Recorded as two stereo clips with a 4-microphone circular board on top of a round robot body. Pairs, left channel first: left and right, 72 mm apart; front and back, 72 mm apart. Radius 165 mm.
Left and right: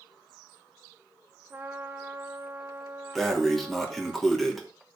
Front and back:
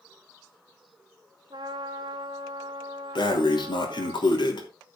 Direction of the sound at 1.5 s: 155° right.